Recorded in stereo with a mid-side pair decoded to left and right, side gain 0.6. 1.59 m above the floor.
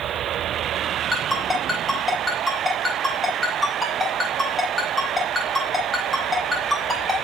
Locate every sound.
1.1 s a ringtone: 10° left, 4.5 m